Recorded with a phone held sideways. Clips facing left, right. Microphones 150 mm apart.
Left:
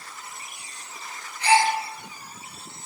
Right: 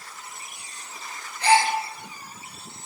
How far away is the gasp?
About 1.5 m.